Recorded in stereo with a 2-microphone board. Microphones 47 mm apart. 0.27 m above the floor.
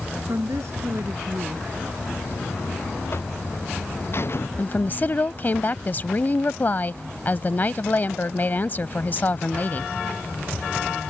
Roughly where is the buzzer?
Left.